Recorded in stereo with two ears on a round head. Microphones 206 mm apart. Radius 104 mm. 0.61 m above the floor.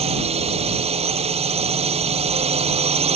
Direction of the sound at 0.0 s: 30° right (ahead or behind).